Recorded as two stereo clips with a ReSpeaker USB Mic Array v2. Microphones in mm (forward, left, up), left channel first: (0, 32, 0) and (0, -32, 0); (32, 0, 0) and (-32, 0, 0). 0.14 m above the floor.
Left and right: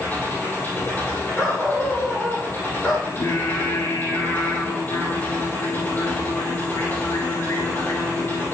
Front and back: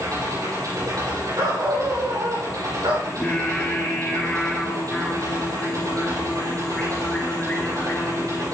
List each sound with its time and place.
0.0 s an engine running: 150° left, 4.5 m
1.4 s a dog barking: 170° left, 3.5 m
3.1 s singing: 70° left, 3 m